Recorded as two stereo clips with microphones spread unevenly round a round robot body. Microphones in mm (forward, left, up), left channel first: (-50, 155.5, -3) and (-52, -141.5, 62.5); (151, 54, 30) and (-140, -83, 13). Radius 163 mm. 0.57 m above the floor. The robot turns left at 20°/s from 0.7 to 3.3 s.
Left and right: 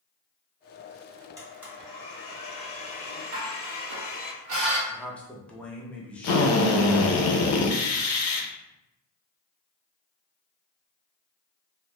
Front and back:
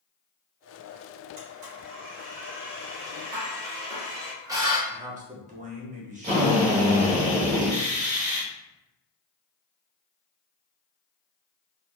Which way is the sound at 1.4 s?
175° right.